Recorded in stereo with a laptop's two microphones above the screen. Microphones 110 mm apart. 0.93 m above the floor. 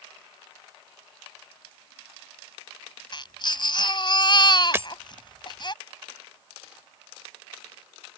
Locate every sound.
3.1 s a baby crying: 45° left (ahead or behind)
4.7 s breaking glass: 25° right (ahead or behind)